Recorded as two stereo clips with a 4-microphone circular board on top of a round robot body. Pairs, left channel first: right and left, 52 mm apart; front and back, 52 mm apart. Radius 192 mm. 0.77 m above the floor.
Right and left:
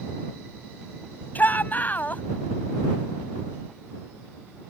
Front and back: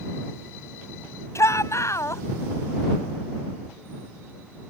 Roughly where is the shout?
Ahead right.